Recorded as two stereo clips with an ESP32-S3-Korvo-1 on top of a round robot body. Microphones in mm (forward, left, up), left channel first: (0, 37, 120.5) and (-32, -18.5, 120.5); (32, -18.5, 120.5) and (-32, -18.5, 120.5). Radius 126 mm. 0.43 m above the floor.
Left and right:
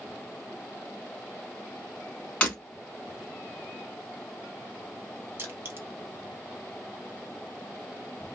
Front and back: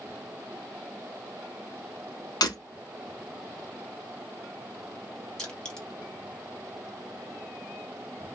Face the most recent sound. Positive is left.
turn(degrees=-75)